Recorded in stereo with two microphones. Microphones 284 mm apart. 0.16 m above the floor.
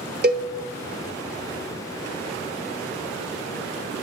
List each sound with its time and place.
0.2 s a cowbell: 35° right (ahead or behind), 0.7 m